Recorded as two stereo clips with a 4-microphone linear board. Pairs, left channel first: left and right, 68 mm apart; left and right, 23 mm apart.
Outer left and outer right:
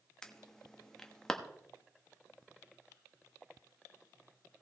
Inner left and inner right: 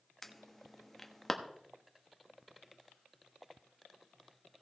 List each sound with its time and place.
0.2 s an alarm: 10° left (ahead or behind), 1.0 m